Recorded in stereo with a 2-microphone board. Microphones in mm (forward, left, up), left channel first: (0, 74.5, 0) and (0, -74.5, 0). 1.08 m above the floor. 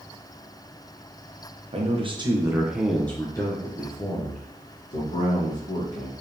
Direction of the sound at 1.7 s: 45° right (ahead or behind).